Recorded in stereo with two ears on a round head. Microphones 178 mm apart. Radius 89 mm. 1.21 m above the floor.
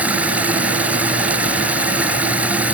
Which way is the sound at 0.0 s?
5° right (ahead or behind).